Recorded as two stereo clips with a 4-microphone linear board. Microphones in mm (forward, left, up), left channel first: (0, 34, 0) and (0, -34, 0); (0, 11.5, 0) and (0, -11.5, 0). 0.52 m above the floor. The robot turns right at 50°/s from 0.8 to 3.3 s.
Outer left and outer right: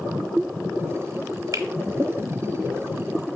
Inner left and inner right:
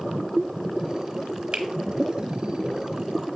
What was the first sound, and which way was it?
A finger snap, 55° right (ahead or behind).